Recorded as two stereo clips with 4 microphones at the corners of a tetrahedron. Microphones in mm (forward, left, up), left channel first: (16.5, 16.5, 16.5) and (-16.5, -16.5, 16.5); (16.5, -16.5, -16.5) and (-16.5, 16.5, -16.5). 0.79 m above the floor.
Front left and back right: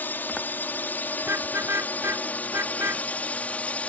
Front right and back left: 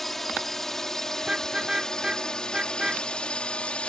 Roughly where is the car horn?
Behind right.